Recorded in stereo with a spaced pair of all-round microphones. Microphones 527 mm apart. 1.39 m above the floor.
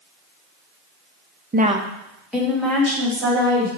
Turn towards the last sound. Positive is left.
turn(degrees=5)  # may be behind; listen again after turning